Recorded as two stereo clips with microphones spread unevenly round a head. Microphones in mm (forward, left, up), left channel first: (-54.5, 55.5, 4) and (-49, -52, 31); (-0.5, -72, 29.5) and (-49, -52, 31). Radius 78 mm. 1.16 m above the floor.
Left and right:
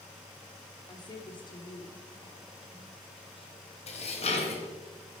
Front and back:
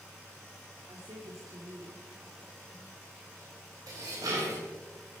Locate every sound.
0.9 s a woman speaking: 145° left, 2 m; by 3.5 s 130° left, 5 m
3.9 s dishes clattering: 120° left, 4 m